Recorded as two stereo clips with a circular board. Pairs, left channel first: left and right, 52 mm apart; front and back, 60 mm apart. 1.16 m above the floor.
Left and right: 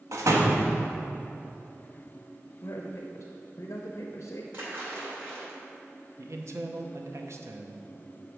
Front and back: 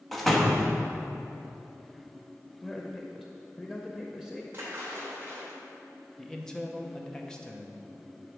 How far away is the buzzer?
No buzzer in this recording.